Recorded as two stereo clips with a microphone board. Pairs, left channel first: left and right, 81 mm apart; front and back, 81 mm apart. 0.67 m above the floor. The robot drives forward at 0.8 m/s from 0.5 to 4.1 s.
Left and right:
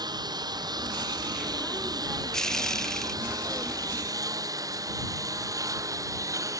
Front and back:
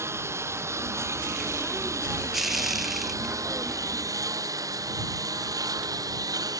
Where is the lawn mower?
125° right; by 6.6 s 135° right.